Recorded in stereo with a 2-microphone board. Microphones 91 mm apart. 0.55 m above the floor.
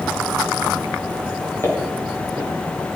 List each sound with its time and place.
1.6 s footsteps: 25° left (ahead or behind), 6.5 m